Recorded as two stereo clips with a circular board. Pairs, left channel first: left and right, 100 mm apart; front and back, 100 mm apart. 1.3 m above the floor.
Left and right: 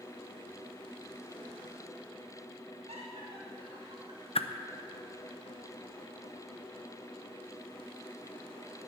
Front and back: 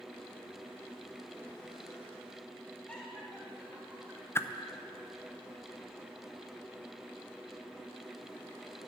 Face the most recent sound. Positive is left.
turn(degrees=65)